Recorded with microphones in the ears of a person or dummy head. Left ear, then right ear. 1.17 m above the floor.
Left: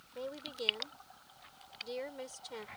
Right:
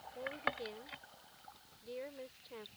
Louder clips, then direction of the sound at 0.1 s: Right 2 dB; 85° left.